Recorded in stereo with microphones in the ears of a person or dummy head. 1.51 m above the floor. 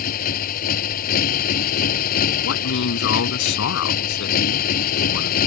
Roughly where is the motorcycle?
Left.